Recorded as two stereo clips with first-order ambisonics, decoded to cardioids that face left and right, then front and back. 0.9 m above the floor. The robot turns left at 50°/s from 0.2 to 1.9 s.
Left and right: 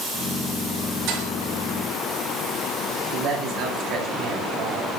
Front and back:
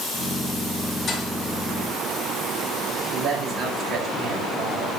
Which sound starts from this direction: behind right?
A man speaking, at 3.1 s.